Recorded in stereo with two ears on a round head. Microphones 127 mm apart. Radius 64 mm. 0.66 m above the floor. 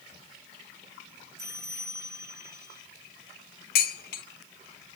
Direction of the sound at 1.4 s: 20° right (ahead or behind).